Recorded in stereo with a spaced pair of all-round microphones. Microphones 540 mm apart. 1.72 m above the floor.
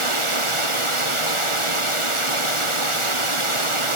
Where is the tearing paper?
No tearing paper in this recording.